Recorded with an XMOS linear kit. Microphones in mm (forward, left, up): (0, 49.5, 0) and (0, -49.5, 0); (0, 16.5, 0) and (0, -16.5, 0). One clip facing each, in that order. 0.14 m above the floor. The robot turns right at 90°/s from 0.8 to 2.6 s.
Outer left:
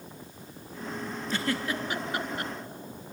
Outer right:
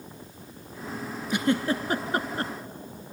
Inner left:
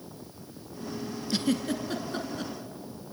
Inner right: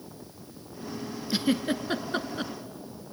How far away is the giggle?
About 1.0 m.